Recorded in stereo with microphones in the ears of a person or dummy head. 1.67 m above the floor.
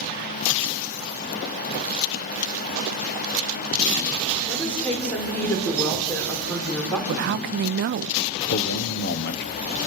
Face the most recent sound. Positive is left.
turn(degrees=60)  # may be behind; listen again after turning